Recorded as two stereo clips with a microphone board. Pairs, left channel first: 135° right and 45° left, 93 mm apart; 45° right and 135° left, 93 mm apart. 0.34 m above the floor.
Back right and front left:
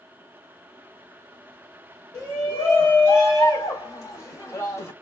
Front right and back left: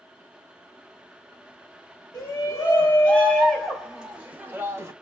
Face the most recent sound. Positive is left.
turn(degrees=180)